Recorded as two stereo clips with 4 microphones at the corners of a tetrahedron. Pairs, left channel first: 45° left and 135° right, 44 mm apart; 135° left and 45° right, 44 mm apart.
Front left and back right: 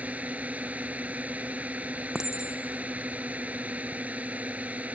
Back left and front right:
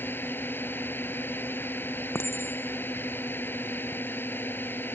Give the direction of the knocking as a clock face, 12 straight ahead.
I don't hear knocking.